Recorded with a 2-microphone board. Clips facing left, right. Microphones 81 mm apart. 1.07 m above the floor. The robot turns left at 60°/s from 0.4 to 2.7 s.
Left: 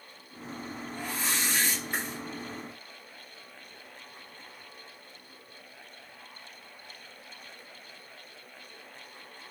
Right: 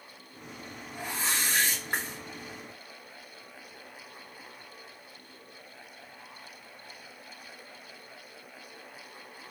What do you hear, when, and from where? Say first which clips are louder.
0.9 s a whoosh: right 1 dB; 15° right, 1.5 m; by 2.2 s 90° right, 1.5 m